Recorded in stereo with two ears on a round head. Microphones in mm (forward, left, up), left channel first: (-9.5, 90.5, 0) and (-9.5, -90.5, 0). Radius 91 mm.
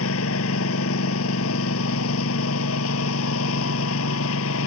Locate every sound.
0.0 s a lawn mower: 75° left (ahead or behind)